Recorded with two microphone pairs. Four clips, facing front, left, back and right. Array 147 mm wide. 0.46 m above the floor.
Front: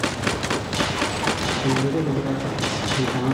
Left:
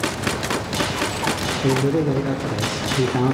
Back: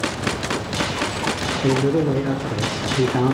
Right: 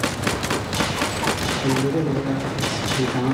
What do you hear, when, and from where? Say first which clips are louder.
1.6 s a man speaking: left 2 dB, back 5 dB; 155° left, 1.0 m